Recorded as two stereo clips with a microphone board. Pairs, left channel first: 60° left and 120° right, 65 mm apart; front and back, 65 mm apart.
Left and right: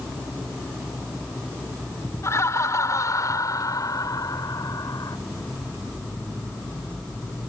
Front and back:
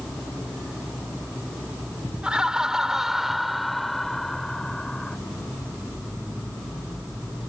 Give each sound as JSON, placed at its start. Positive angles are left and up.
{"t": 2.2, "sound": "laughter", "azimuth_deg": 105}